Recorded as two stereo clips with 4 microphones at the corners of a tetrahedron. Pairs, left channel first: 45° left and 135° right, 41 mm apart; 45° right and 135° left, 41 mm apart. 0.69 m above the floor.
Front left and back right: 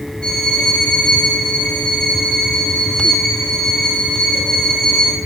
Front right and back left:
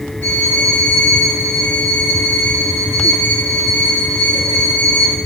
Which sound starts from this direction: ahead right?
A violin, at 0.2 s.